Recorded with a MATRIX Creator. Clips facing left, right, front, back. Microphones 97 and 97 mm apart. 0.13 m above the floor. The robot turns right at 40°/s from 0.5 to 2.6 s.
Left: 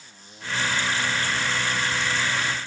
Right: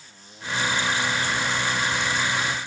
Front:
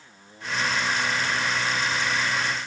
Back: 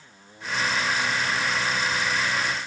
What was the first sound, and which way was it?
Only background noise.